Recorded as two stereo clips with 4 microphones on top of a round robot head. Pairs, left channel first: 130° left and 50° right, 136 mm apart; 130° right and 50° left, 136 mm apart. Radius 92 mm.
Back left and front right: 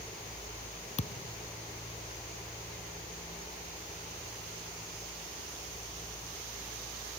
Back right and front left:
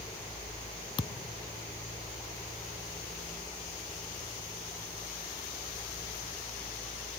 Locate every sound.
1.0 s a thud: 175° left